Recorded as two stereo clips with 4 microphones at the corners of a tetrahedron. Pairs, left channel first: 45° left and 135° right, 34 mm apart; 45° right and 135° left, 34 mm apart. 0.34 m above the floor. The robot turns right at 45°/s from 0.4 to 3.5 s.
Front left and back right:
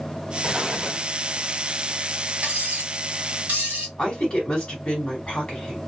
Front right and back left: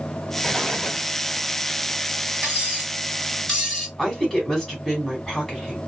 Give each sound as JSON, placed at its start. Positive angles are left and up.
{"t": 0.4, "sound": "an explosion", "azimuth_deg": -95, "distance_m": 1.4}
{"t": 2.4, "sound": "cutlery clinking", "azimuth_deg": -165, "distance_m": 1.6}
{"t": 4.0, "sound": "a woman speaking", "azimuth_deg": 25, "distance_m": 1.6}